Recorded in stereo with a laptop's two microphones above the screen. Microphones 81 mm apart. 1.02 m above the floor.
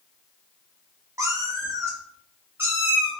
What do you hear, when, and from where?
1.2 s a cat meowing: 45° right (ahead or behind), 1.1 m; by 3.1 s 20° right (ahead or behind), 1.6 m